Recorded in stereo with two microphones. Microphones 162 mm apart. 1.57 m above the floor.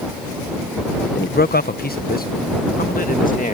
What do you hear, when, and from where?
1.1 s a man speaking: 75° left (ahead or behind); by 3.5 s 55° left (ahead or behind)